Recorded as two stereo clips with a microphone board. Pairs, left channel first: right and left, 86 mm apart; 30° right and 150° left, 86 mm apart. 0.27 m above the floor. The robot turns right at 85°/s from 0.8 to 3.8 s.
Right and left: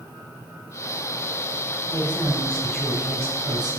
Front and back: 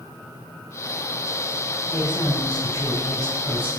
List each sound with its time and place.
1.9 s a woman speaking: 75° right, 2 m; by 3.8 s 90° left, 2 m